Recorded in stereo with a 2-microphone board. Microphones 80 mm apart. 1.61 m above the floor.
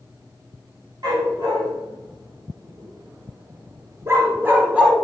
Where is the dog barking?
60° right (ahead or behind), 4 m; by 4.9 s 10° right (ahead or behind), 1.7 m.